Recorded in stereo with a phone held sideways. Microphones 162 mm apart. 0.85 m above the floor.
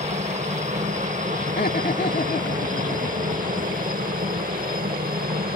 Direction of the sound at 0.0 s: 45° right (ahead or behind).